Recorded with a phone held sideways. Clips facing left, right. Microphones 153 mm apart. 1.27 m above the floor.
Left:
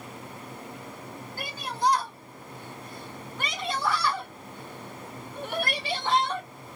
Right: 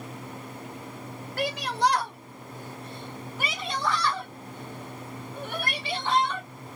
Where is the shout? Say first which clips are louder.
Right 5 dB; 80° right, 1.0 m; by 6.5 s 35° left (ahead or behind), 2 m.